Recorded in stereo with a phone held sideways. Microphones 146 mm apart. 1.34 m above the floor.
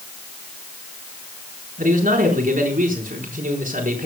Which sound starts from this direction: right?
A man speaking, at 1.8 s.